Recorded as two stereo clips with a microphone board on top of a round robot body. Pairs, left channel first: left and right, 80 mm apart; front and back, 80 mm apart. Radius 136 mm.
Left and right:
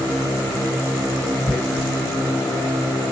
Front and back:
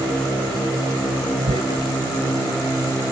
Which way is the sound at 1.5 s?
175° left.